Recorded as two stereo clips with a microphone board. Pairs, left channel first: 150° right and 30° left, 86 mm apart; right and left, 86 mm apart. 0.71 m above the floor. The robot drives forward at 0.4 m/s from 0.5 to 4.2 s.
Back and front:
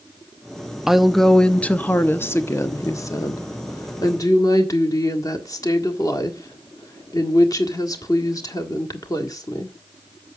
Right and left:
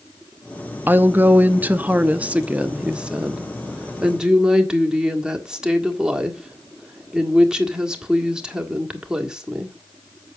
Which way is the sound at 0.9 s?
105° left.